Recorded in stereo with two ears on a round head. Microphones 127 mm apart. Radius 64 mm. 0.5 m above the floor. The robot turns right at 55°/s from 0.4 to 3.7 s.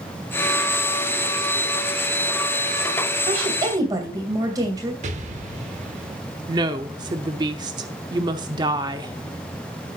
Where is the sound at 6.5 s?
30° right (ahead or behind), 0.8 m.